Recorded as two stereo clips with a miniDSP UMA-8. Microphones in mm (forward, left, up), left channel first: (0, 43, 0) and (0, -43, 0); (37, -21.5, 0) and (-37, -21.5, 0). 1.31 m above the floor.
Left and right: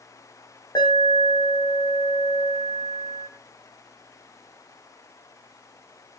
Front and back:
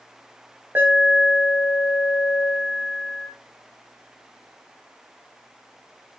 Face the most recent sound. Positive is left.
turn(degrees=120)